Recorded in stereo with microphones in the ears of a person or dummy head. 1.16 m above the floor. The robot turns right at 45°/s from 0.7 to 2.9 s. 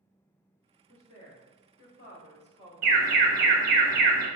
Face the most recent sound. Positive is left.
turn(degrees=-55)  # may be behind; listen again after turning